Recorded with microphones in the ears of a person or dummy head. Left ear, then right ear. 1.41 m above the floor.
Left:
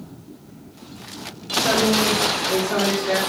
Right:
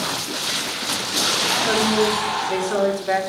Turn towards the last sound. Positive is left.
turn(degrees=-5)  # may be behind; listen again after turning